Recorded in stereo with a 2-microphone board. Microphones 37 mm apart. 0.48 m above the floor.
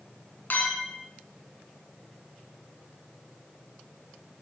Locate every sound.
0.5 s a clink: 50° left (ahead or behind), 3.5 m